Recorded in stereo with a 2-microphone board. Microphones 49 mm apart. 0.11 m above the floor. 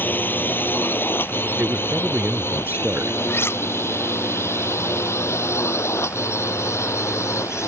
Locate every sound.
0.0 s a drone: 40° left (ahead or behind); by 7.7 s 70° left (ahead or behind)
1.6 s a man speaking: 40° right (ahead or behind)
3.3 s cutlery clinking: 55° left (ahead or behind)